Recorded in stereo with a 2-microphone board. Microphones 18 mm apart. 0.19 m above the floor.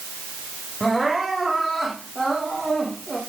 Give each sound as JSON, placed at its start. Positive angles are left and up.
{"t": 0.8, "sound": "crying", "side_deg": 0, "distance_m": 9.0}